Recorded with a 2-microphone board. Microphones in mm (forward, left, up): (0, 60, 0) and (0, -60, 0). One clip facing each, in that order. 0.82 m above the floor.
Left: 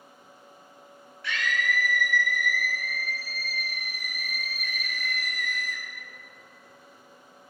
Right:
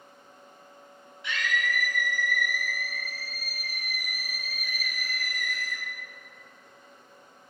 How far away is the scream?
About 4.5 m.